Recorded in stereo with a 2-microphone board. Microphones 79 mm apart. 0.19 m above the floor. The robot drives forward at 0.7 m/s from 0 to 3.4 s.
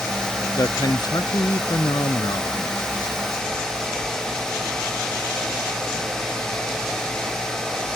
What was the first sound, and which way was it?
A man speaking, 45° left (ahead or behind).